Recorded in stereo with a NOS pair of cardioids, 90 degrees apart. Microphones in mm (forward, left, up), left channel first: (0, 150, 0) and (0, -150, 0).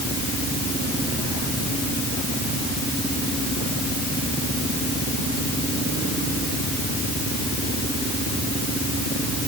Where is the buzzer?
I don't hear a buzzer.